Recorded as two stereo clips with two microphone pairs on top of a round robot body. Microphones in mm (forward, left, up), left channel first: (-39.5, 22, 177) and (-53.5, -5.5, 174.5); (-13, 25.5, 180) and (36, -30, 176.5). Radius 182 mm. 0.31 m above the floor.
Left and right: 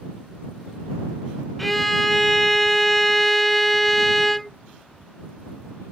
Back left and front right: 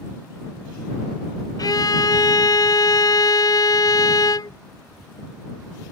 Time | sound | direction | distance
1.6 | a violin | 150° left | ?